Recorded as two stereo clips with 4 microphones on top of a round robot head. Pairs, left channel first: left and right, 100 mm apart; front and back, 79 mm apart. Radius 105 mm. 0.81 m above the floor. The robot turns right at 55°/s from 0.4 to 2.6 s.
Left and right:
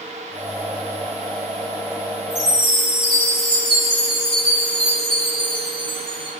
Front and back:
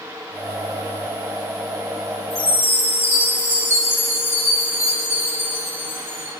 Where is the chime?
130° right, 7.5 m; by 6.3 s 115° right, 7.5 m.